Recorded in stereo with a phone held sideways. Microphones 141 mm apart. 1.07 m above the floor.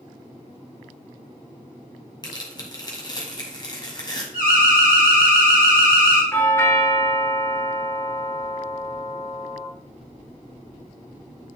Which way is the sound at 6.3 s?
15° left (ahead or behind).